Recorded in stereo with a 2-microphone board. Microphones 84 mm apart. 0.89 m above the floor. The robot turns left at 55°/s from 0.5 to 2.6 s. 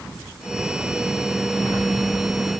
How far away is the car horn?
No car horn in this recording.